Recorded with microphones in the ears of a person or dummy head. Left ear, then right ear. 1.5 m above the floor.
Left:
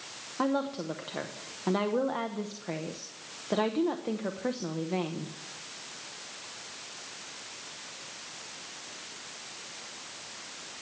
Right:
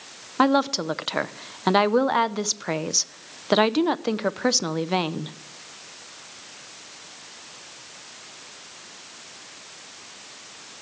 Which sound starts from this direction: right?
A woman speaking, at 0.4 s.